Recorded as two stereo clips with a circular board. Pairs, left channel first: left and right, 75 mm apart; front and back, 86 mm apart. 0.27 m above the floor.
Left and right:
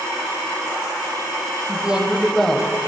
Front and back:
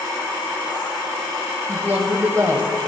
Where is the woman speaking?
135° right, 1.1 m; by 2.9 s 150° left, 1.3 m.